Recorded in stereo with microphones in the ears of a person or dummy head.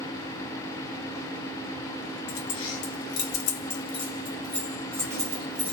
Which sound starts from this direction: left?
Keys jangling, at 2.3 s.